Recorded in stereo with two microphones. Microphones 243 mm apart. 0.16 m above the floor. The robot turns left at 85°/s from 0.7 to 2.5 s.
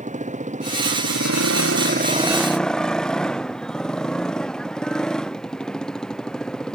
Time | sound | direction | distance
0.0 | a motorcycle | 30° right | ?